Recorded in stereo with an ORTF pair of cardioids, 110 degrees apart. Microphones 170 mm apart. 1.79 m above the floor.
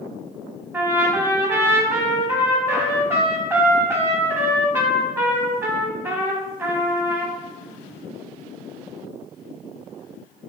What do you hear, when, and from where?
0.7 s a trumpet: 15° right, 0.6 m